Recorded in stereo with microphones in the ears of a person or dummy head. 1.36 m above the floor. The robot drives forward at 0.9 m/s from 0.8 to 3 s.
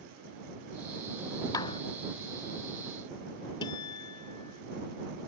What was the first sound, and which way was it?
A clap, 25° left (ahead or behind).